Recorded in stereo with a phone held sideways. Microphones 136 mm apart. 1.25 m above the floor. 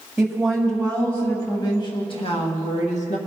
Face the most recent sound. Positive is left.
turn(degrees=65)  # may be behind; listen again after turning